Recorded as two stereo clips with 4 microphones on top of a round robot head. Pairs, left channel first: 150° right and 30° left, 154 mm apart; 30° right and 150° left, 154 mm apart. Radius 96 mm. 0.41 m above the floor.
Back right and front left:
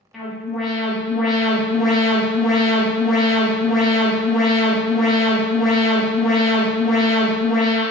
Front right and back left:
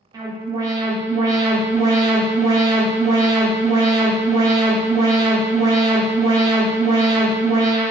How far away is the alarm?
About 0.8 m.